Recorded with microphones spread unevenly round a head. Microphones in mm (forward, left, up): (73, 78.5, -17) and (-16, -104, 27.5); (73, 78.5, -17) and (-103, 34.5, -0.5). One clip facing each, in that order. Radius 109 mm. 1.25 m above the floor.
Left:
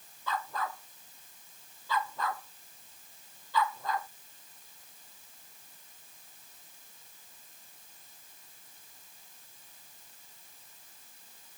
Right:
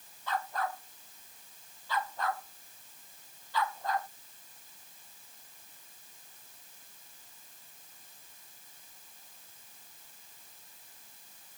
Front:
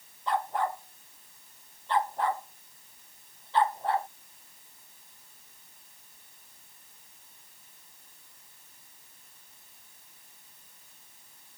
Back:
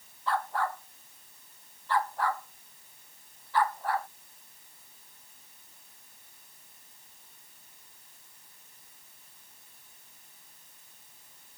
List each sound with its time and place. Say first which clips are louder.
0.3 s a dog barking: right 1 dB, front 2 dB; 85° left; by 4.1 s 80° left